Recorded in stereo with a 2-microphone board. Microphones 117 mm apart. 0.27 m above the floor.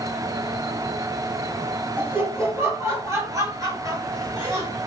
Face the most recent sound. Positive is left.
turn(degrees=-35)  # may be behind; listen again after turning